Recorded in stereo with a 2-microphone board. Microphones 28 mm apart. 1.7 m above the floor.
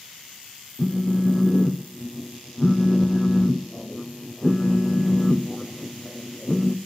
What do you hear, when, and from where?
0.8 s a phone buzzing: 15° left (ahead or behind), 0.6 m